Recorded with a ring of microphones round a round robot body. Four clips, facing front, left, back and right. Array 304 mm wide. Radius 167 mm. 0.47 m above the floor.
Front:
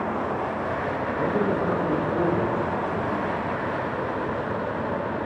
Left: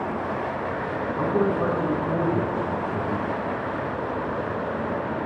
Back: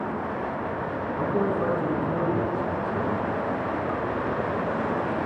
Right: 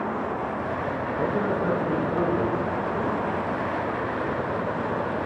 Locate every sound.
1.2 s a man speaking: 105° left, 4.5 m